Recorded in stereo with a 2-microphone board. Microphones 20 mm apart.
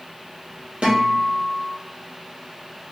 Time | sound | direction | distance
0.8 | a guitar | 70° right (ahead or behind) | 2.5 m